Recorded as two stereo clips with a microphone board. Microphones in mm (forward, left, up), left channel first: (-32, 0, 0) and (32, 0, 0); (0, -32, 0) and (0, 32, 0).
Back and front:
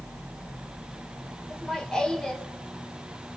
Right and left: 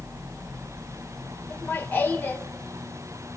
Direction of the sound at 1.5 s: 110° right.